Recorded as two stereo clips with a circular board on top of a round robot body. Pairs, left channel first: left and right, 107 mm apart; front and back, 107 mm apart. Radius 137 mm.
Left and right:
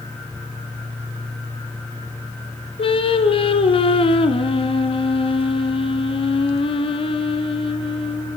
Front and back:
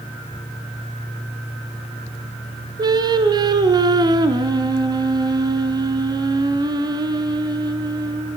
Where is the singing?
125° left, 1.8 m.